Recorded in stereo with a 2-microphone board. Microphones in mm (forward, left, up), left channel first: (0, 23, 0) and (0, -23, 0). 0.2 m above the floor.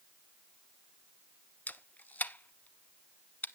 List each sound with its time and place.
1.7 s a camera shutter: 40° left (ahead or behind), 0.6 m